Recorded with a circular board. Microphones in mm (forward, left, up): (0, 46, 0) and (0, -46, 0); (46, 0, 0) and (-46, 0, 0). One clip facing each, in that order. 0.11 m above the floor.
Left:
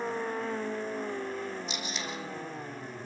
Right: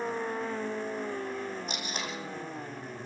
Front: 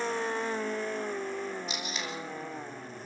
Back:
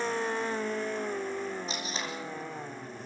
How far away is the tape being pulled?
About 5.5 m.